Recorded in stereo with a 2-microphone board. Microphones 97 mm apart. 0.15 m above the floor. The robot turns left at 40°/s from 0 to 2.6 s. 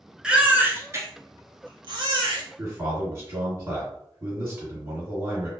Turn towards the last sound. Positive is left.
turn(degrees=-30)  # may be behind; listen again after turning